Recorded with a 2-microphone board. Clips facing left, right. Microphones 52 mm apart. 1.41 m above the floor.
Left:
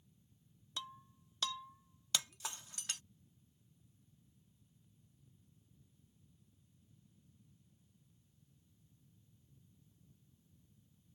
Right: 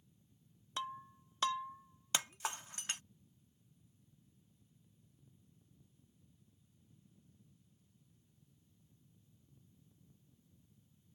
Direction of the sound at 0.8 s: 30° right (ahead or behind).